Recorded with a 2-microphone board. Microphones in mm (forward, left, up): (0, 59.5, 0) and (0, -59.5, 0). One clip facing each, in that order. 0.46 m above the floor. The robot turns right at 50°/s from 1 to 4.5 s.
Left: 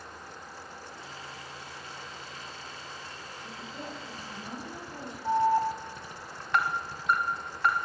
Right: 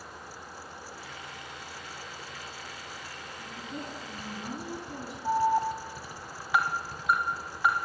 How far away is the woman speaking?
About 5 m.